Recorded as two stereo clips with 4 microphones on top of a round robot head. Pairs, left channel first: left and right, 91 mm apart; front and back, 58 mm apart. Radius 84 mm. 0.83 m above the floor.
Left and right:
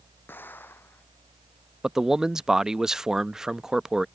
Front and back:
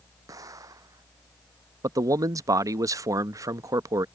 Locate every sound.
0.3 s an explosion: 160° left
1.8 s a man speaking: 175° right